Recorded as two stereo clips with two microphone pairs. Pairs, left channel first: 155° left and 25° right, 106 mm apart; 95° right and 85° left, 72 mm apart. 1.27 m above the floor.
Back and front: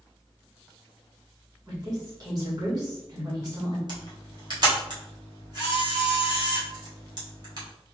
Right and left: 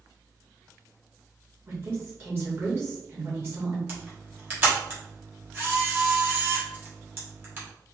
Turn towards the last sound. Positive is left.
turn(degrees=20)